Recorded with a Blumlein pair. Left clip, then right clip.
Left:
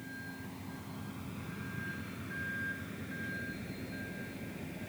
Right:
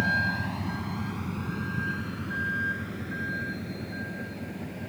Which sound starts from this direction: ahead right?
A vehicle, at 0.0 s.